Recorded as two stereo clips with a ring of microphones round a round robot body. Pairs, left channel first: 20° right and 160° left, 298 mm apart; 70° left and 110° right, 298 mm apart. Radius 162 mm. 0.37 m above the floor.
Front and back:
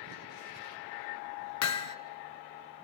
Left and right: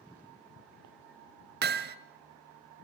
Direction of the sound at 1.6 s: 55° right.